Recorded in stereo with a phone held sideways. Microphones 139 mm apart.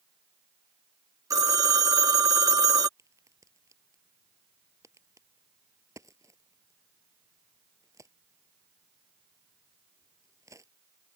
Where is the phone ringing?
25° right (ahead or behind).